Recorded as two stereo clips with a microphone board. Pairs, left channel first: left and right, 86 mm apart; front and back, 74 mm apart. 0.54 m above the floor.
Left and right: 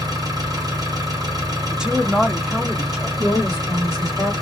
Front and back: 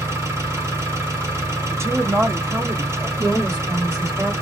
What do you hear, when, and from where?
0.0 s an engine running: 135° right, 1.4 m
1.7 s a woman speaking: 170° right, 0.8 m
3.2 s a woman speaking: 135° right, 1.8 m